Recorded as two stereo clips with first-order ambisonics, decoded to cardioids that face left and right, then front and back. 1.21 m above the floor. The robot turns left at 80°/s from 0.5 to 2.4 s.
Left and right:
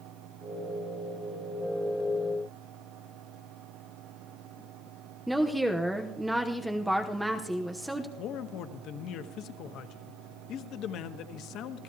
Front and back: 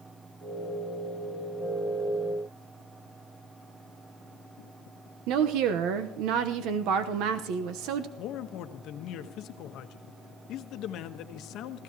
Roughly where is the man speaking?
Ahead left.